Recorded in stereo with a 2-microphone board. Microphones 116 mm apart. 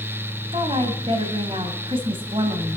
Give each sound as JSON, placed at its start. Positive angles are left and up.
{"t": 0.5, "sound": "a woman speaking", "side_deg": -50, "distance_m": 2.0}